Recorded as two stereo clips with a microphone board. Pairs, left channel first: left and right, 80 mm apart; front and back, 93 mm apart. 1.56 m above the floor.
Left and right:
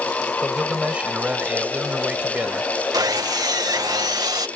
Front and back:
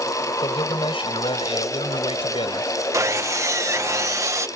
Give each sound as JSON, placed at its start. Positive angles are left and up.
{"t": 0.4, "sound": "a man speaking", "azimuth_deg": -15}
{"t": 2.9, "sound": "sawing", "azimuth_deg": -125}